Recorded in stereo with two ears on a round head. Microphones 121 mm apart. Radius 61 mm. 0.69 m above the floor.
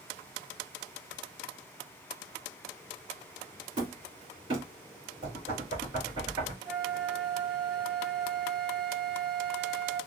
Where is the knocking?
40° right (ahead or behind), 2.5 m.